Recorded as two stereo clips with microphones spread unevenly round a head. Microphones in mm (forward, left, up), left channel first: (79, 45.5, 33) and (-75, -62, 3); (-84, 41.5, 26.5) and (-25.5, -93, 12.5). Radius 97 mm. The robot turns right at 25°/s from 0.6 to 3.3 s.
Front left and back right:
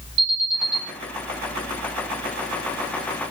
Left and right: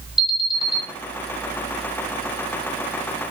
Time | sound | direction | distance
0.2 | an alarm | 155° right | 5.5 m